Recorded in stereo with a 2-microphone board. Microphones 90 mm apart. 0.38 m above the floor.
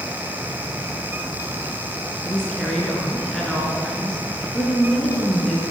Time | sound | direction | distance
2.2 | a woman speaking | 5° left (ahead or behind) | 5 m